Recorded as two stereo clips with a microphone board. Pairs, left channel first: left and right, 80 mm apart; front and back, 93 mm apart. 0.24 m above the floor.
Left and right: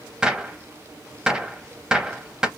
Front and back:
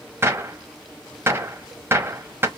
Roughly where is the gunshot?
Behind.